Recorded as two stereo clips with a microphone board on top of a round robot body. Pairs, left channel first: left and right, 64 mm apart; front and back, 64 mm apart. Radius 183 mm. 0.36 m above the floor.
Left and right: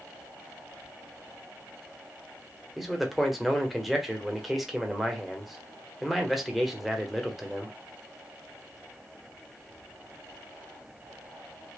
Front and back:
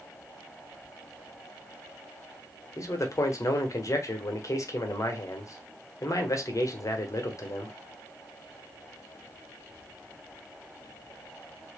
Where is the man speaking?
Straight ahead, 1.3 m.